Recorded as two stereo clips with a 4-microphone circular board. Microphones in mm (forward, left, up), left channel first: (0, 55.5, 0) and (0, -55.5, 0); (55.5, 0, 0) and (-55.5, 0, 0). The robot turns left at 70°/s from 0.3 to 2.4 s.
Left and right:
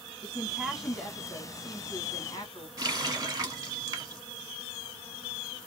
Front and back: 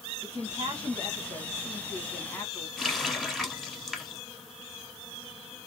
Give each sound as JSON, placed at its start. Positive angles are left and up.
{"t": 0.2, "sound": "a woman speaking", "azimuth_deg": -150, "distance_m": 1.8}
{"t": 2.8, "sound": "a running tap", "azimuth_deg": -85, "distance_m": 1.1}